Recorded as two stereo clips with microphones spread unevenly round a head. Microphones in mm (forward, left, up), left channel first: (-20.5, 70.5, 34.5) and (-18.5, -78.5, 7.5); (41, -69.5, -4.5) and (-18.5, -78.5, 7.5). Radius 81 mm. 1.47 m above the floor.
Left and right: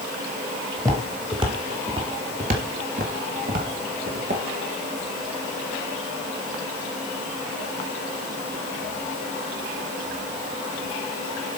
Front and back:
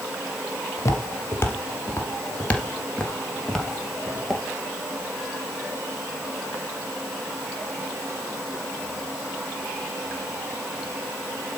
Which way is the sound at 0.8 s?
10° right.